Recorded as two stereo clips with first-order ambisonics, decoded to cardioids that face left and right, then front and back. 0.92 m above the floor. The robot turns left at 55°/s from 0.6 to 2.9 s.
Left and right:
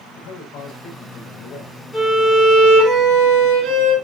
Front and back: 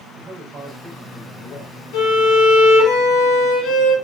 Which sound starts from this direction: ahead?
A violin, at 1.9 s.